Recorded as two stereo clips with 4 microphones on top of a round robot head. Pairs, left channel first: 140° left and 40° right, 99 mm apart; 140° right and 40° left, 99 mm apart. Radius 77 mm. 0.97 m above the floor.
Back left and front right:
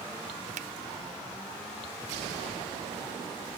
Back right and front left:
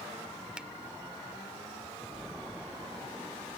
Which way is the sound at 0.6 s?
40° right.